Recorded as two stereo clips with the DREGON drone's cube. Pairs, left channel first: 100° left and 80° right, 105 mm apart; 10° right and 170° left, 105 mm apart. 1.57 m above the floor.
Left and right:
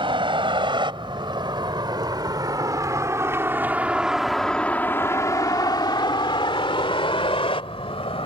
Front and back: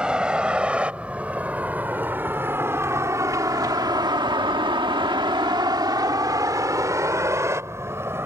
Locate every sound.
0.0 s a vehicle: 105° right; by 8.3 s 110° left